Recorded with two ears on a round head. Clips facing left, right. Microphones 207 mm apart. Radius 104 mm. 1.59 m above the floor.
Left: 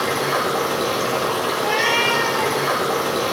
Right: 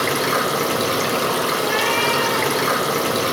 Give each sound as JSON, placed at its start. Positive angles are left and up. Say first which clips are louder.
{"t": 0.0, "sound": "running water", "louder": "right 1 dB", "side_deg": -35, "distance_m": 1.4}
{"t": 1.6, "sound": "a cat meowing", "louder": "right 1 dB", "side_deg": 55, "distance_m": 1.9}